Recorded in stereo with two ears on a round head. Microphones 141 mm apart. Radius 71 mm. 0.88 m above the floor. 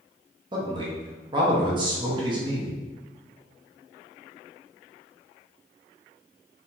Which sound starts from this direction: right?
A man speaking, at 0.5 s.